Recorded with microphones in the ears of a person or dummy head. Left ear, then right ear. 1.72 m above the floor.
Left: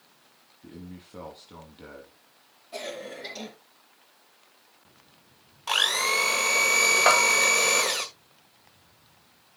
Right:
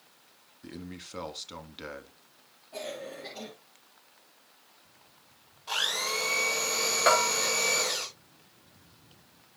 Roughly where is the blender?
Left.